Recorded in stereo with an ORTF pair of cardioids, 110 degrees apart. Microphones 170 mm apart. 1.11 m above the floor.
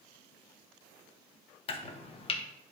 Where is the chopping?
35° left, 0.9 m.